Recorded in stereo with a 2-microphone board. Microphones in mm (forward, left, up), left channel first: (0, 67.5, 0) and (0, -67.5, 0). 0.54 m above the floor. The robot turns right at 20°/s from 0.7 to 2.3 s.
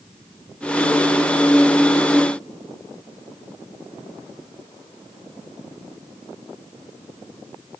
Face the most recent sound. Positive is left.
No sound to turn to.